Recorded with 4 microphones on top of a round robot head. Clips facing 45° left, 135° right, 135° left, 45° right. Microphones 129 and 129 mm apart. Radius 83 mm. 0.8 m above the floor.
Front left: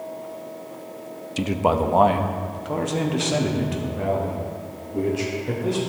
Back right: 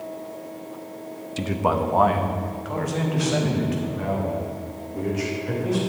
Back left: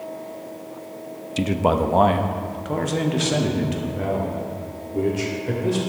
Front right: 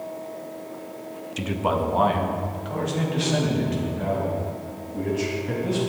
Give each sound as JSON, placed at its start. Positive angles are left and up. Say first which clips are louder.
{"t": 1.4, "sound": "a man speaking", "louder": "front left 2 dB, back left 5 dB", "azimuth_deg": 110, "distance_m": 0.5}